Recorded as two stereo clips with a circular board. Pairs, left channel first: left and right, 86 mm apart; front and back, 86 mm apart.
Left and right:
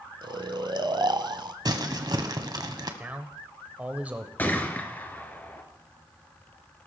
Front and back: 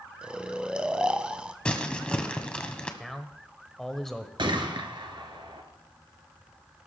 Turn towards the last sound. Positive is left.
turn(degrees=160)